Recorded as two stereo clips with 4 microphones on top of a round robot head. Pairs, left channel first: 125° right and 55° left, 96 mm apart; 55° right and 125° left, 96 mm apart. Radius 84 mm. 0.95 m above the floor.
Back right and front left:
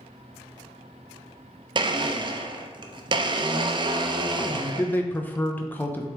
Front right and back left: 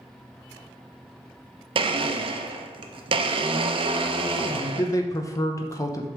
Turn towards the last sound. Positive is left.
turn(degrees=-70)